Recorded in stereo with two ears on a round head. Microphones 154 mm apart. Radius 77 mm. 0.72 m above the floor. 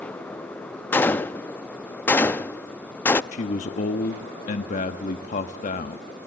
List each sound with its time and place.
0.9 s a gunshot: 10° left (ahead or behind), 0.5 m
3.3 s a man speaking: 45° left (ahead or behind), 1.1 m